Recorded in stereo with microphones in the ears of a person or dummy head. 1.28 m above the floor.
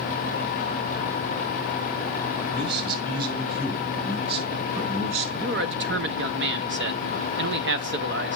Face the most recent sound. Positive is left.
turn(degrees=-50)  # may be behind; listen again after turning